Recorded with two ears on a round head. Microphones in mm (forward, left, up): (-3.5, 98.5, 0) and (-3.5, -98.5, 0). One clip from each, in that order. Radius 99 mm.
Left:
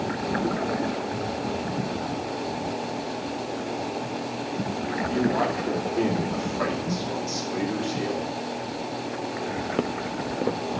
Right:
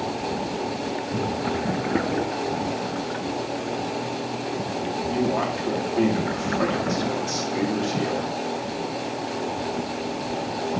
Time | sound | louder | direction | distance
5.1 | a man speaking | even | 5° right (ahead or behind) | 2 m